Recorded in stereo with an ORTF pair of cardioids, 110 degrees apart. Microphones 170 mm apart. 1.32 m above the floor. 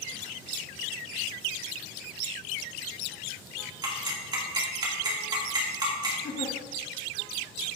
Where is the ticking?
25° right, 2.5 m.